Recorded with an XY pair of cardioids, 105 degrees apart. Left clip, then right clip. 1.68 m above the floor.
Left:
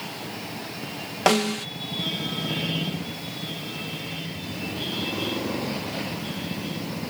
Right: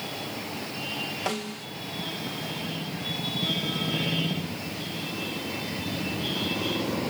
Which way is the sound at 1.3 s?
70° left.